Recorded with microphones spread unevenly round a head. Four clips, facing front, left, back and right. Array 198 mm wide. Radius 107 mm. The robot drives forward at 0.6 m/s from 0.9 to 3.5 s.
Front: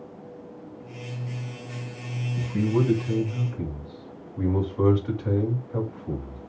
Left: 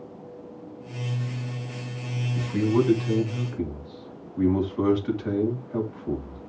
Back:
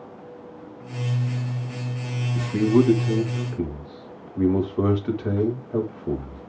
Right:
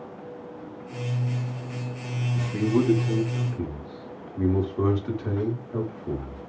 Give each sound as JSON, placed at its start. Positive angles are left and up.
{"t": 2.4, "sound": "a man speaking", "azimuth_deg": 180, "distance_m": 4.0}